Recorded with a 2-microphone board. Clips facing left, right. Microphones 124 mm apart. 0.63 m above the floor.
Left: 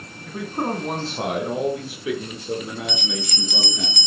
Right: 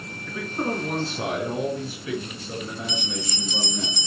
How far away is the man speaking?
About 6.5 m.